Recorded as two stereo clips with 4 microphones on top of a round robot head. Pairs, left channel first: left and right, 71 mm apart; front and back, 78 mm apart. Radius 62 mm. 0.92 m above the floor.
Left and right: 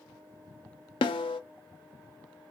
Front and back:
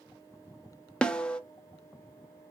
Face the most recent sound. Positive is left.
turn(degrees=80)